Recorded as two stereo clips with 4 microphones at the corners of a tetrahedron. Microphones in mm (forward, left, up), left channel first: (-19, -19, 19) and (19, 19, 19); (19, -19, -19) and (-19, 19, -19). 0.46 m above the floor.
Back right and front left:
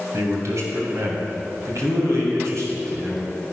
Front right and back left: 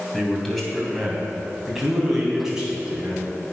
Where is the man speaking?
35° left, 3 m; by 3.3 s 60° left, 4 m.